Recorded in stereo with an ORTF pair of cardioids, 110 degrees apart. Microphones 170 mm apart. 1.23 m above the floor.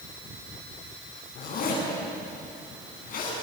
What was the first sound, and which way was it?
A zipper, 60° left.